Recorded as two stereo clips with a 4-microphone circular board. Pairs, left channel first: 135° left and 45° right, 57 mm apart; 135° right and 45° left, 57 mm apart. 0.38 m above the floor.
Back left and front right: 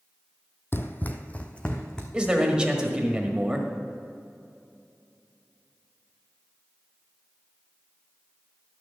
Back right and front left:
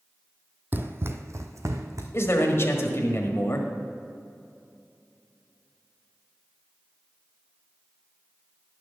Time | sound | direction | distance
0.7 | running footsteps | 95° left | 0.7 m
2.1 | a man speaking | 115° right | 1.5 m